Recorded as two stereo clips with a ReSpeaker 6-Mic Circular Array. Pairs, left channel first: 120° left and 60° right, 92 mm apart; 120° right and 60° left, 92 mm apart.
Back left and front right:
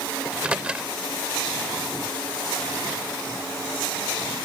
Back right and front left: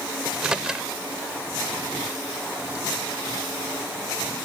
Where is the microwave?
5° right.